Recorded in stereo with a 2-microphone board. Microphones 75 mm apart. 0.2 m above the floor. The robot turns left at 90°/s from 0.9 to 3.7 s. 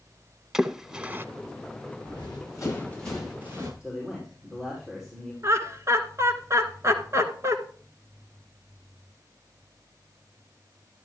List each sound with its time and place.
0.5 s a splash: 10° right (ahead or behind), 0.8 m; by 1.2 s 30° right (ahead or behind), 0.8 m
2.0 s running footsteps: 85° left, 9.5 m; by 3.7 s 45° right (ahead or behind), 10 m
3.8 s a man speaking: 5° right (ahead or behind), 5.5 m
5.4 s laughter: 40° right (ahead or behind), 2.5 m